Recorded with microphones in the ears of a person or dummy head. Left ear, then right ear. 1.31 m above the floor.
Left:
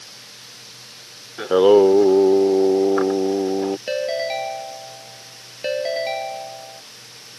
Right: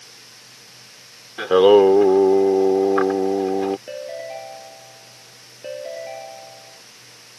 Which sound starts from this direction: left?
A ringtone, at 3.9 s.